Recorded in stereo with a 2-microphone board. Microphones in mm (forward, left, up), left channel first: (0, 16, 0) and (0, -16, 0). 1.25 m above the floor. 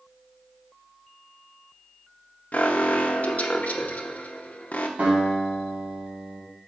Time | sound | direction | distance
2.5 | an alarm | 50° left (ahead or behind) | 0.8 m
5.0 | a guitar | 40° right (ahead or behind) | 4 m